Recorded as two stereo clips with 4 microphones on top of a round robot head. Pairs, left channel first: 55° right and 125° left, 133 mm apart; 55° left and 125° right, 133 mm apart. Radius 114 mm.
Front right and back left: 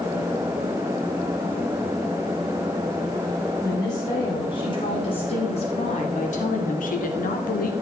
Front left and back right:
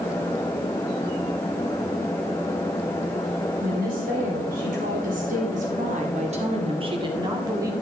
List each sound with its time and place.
3.6 s a woman speaking: 120° right, 3.5 m; by 7.7 s 55° right, 2 m